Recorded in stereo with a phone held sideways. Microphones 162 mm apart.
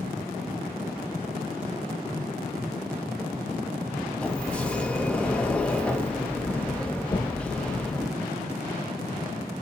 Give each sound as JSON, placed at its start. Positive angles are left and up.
{"t": 4.2, "sound": "a sliding door", "side_deg": 5, "distance_m": 0.9}
{"t": 7.1, "sound": "knocking", "side_deg": 35, "distance_m": 0.6}